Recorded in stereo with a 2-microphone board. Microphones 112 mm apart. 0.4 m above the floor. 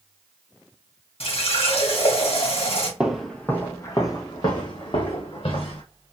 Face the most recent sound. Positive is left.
turn(degrees=55)  # may be behind; listen again after turning